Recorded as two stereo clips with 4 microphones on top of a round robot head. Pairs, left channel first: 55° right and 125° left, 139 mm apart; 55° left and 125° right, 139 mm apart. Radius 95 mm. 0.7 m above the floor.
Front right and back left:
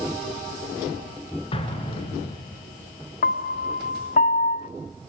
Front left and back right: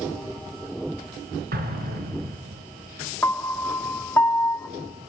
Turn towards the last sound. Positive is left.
turn(degrees=-20)